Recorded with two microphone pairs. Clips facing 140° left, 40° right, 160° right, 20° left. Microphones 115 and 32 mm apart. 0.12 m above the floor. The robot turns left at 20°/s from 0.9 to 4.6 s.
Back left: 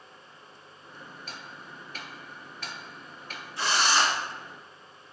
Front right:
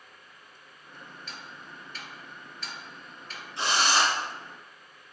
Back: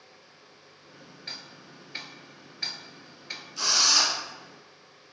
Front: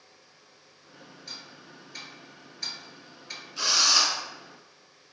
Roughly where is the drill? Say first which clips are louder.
Even, front 1 dB; ahead right.